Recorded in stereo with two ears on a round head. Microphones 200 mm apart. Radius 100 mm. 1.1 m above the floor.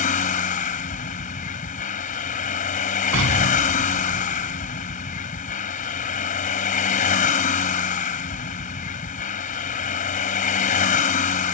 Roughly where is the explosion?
Right.